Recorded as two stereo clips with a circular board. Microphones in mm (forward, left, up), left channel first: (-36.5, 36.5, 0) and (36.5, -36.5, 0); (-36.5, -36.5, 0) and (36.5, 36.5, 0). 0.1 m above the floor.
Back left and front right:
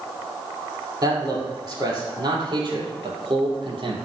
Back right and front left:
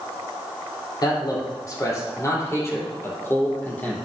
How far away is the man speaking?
About 3.5 m.